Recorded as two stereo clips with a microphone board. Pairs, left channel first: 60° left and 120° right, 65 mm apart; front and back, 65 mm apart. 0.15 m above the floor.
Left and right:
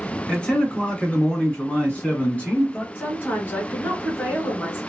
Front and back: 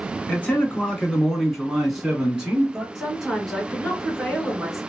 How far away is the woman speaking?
About 1.9 m.